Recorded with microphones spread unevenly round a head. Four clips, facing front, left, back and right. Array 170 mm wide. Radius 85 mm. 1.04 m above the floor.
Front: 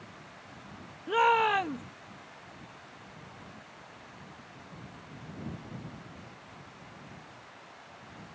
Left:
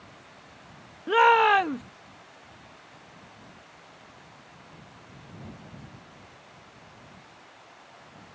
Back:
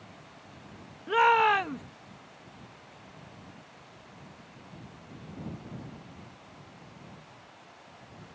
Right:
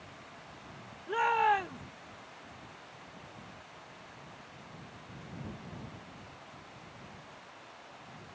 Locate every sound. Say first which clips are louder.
1.1 s a shout: left 9 dB, back 2 dB; 85° left